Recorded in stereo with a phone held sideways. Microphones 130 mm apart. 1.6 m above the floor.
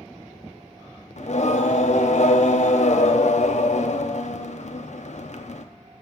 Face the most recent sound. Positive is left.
turn(degrees=60)  # may be behind; listen again after turning